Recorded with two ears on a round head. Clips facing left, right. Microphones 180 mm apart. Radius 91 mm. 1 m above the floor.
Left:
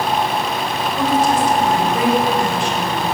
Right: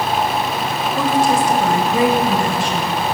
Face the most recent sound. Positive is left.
turn(degrees=-70)  # may be behind; listen again after turning